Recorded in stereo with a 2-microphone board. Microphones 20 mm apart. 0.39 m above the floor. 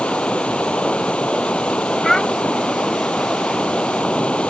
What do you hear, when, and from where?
0.0 s running water: 75° left (ahead or behind)
2.0 s a child speaking: 20° left (ahead or behind)